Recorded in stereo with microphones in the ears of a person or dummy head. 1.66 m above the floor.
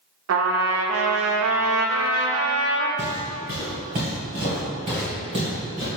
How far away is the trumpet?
About 0.6 m.